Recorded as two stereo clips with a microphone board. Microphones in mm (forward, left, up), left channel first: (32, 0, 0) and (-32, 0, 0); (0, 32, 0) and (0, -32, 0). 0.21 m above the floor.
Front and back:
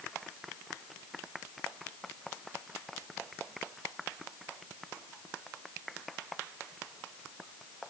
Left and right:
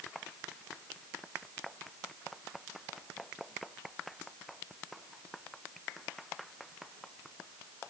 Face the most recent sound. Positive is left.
No sound to turn to.